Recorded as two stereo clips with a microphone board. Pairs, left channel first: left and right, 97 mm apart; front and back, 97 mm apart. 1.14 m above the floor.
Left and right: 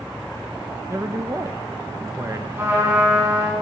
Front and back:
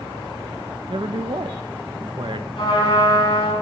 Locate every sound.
0.9 s a man speaking: 145° right, 0.7 m
2.6 s a trumpet: 25° right, 4.5 m